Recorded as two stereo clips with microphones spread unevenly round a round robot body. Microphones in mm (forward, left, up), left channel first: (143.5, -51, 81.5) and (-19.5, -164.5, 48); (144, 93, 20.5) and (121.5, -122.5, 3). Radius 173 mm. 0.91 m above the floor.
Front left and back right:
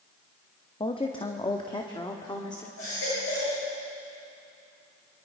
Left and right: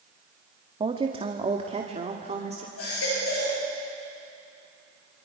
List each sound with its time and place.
0.8 s a woman speaking: 30° right, 1.5 m; by 2.7 s 35° right, 2.5 m
2.8 s a baby crying: 80° left, 8.5 m